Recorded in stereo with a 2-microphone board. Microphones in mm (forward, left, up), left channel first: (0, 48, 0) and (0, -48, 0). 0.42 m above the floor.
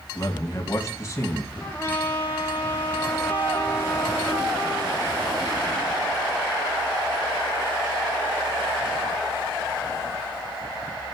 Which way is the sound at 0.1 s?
35° left (ahead or behind).